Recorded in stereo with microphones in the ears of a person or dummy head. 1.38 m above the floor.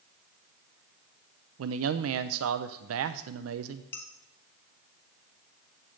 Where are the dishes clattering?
20° left (ahead or behind), 1.4 m.